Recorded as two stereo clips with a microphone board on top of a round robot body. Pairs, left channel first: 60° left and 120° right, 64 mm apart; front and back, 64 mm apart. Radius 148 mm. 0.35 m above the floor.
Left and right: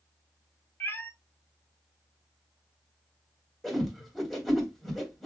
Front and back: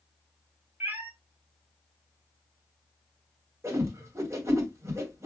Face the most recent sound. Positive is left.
turn(degrees=145)